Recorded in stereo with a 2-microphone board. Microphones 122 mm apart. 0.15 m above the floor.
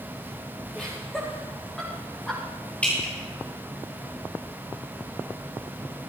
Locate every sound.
0.8 s laughter: centre (ahead or behind), 10 m
2.8 s dripping: 10° left (ahead or behind), 9 m